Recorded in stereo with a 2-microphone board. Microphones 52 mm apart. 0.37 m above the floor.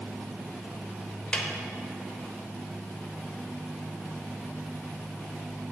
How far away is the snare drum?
About 0.6 m.